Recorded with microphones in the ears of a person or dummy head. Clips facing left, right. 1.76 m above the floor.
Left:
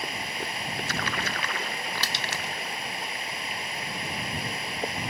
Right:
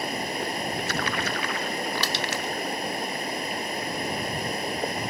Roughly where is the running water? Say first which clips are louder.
Right 6 dB; right.